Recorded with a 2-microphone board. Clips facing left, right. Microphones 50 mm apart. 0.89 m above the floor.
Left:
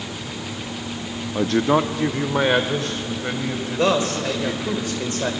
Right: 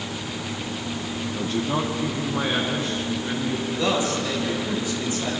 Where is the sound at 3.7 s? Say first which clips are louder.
Left 5 dB; 50° left (ahead or behind), 4.5 m.